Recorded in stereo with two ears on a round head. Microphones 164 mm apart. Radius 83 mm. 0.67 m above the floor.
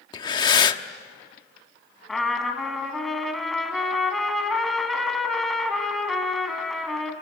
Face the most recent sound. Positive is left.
turn(degrees=0)  # may be behind; listen again after turning